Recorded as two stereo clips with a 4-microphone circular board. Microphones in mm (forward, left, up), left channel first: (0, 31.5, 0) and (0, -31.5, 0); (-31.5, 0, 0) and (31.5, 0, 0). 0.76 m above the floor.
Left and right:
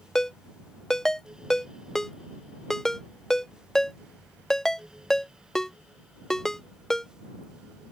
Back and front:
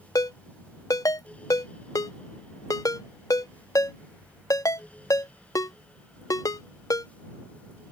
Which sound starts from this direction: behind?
A ringtone, at 0.1 s.